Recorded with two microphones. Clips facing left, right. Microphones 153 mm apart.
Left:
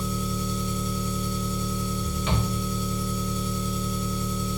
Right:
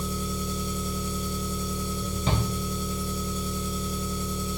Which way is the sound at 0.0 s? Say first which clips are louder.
Left 2 dB; 45° right (ahead or behind).